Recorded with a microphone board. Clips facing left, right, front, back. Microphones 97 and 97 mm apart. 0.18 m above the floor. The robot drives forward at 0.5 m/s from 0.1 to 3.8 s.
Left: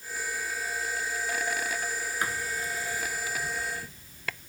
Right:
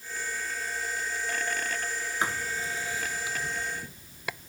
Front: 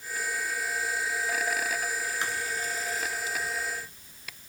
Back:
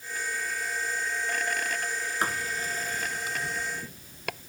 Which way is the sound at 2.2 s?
150° right.